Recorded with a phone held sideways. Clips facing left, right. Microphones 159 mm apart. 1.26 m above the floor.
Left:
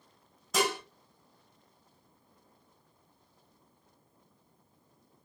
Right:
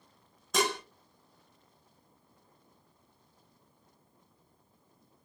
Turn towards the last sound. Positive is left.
turn(degrees=0)  # may be behind; listen again after turning